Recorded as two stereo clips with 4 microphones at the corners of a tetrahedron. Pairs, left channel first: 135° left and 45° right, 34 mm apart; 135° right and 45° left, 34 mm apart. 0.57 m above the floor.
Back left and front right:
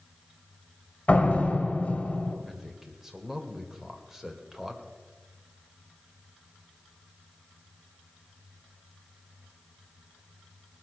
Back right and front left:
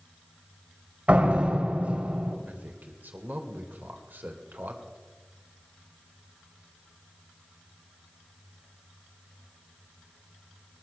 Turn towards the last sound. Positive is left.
turn(degrees=35)